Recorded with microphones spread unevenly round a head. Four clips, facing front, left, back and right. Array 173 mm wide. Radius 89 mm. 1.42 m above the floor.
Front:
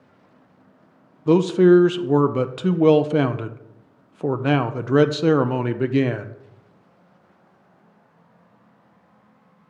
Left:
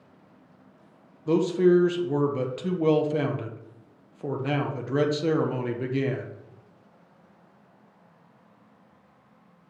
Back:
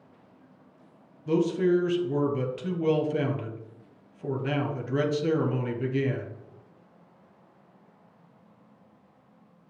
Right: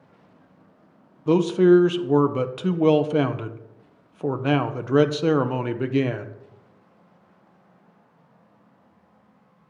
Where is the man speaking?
20° right, 0.6 m.